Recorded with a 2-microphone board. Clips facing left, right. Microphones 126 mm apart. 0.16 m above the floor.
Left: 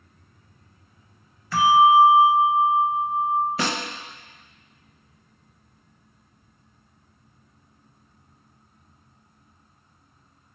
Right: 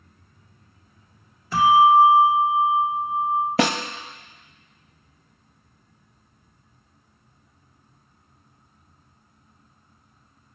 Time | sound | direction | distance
1.5 | a bell | 25° right (ahead or behind) | 1.2 m
3.6 | a snare drum | 80° right | 0.7 m